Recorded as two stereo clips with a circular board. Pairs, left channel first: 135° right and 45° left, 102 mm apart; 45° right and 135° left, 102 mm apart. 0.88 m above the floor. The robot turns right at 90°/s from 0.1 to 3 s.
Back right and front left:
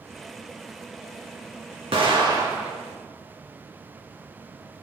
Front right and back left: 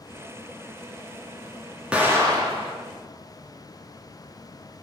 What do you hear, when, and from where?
1.9 s an explosion: 55° left, 2.0 m; by 2.7 s 130° left, 2.0 m